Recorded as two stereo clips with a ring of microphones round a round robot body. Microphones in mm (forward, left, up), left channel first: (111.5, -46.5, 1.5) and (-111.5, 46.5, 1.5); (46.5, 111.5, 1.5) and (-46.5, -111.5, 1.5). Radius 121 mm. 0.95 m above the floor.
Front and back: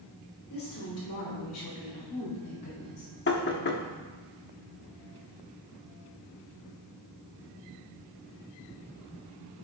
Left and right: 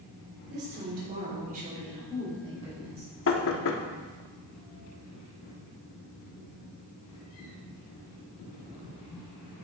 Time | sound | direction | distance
0.5 | a woman speaking | 60° right | 3 m
3.3 | knocking | 25° left | 1.1 m